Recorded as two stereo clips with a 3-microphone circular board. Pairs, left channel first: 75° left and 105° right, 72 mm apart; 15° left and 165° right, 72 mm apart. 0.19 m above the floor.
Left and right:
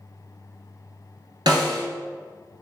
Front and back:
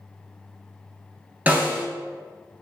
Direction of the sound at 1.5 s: 100° right.